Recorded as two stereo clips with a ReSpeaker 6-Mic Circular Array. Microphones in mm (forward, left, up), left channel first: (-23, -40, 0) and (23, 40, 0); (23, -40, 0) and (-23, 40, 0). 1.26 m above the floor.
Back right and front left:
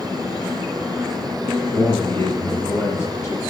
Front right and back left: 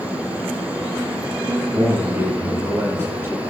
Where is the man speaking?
Straight behind, 4 m.